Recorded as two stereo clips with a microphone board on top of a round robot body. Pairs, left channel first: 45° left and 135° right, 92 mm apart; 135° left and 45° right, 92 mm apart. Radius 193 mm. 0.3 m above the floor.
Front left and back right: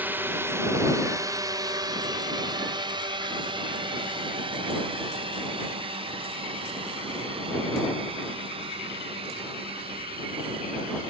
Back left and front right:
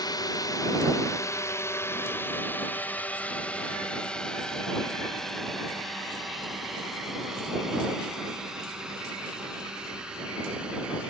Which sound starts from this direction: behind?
A drone, at 0.0 s.